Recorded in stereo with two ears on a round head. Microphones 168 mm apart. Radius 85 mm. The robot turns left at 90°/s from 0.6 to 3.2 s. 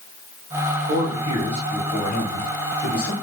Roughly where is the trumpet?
No trumpet in this recording.